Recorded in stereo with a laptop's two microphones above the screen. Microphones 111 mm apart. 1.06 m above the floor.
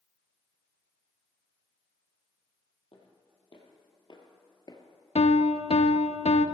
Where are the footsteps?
55° left (ahead or behind), 2 m; by 4.8 s 35° left (ahead or behind), 1.2 m.